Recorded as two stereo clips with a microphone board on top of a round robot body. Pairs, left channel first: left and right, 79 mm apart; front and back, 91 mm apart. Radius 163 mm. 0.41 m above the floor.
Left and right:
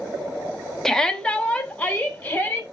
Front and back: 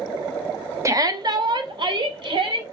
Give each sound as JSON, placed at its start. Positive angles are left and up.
{"t": 0.8, "sound": "a shout", "azimuth_deg": 170, "distance_m": 0.8}